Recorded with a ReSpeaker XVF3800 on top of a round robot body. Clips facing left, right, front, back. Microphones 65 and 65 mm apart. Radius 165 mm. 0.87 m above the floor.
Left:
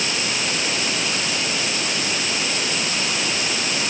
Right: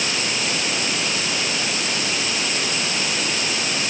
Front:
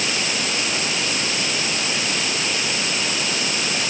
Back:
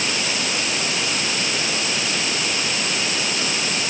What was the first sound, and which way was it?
Only background noise.